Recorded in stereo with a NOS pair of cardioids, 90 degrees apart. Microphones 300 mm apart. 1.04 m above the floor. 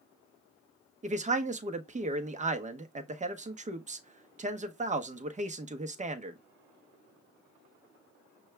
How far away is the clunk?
I don't hear a clunk.